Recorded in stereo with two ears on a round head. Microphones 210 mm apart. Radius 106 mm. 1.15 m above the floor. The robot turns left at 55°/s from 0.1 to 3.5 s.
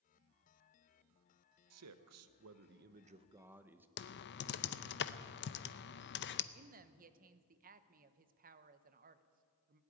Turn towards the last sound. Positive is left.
turn(degrees=-40)  # may be behind; listen again after turning